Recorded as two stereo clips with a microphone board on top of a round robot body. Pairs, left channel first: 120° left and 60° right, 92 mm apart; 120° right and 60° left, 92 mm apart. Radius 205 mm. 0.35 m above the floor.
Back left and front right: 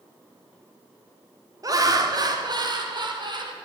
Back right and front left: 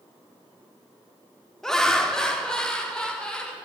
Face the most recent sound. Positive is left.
turn(degrees=-40)